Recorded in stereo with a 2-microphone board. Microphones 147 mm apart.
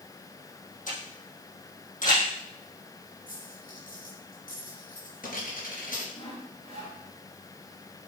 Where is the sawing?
40° left (ahead or behind), 4 m.